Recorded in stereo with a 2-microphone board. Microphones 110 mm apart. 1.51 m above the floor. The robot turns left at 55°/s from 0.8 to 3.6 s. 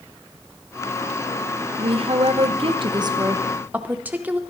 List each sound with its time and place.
1.8 s a woman speaking: 65° right, 0.7 m; by 4.4 s 165° right, 0.7 m